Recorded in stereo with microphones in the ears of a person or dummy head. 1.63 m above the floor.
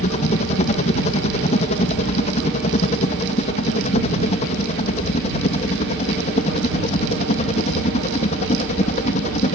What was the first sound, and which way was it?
A helicopter, 40° left (ahead or behind).